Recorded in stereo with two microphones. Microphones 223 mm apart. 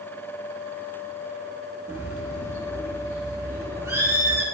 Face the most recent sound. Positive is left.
turn(degrees=-15)  # may be behind; listen again after turning